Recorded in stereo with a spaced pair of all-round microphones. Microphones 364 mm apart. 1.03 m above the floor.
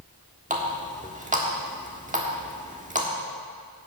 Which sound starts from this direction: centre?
A running tap, at 0.5 s.